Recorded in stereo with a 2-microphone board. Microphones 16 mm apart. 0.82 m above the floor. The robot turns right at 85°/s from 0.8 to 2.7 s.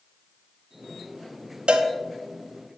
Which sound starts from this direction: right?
A cowbell, at 1.7 s.